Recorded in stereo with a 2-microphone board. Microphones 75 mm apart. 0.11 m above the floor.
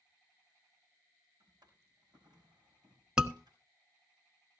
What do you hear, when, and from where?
1.4 s a drawer: 80° right, 5 m
3.2 s a scream: 10° right (ahead or behind), 1.1 m